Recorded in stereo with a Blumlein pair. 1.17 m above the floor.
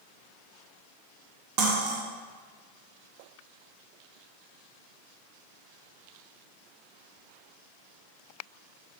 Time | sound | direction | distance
1.6 | cutlery clinking | 45° right | 0.9 m